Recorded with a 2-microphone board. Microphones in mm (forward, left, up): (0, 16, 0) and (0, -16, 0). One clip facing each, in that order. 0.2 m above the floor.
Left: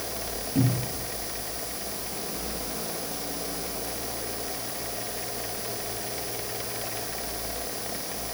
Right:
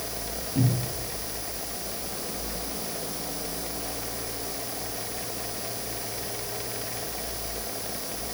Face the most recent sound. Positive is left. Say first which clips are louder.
# left 1 dB
turn(degrees=55)  # may be behind; listen again after turning